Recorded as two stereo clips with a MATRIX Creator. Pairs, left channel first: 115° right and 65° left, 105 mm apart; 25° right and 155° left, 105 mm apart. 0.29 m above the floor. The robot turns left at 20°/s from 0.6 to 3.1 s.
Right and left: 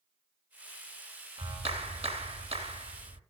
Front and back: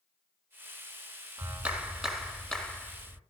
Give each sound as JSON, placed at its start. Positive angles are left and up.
{"t": 1.4, "sound": "a clap", "azimuth_deg": 85, "distance_m": 2.0}